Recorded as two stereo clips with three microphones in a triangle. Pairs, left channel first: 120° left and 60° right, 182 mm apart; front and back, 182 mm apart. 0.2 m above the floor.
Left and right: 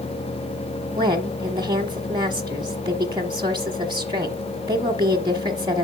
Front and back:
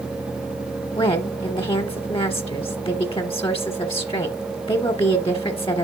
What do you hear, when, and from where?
1.0 s a woman speaking: 20° right, 1.1 m